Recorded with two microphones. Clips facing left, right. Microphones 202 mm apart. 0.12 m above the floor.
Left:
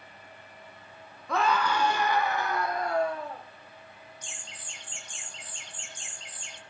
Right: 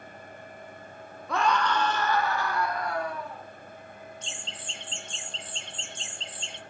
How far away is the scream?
About 1.7 m.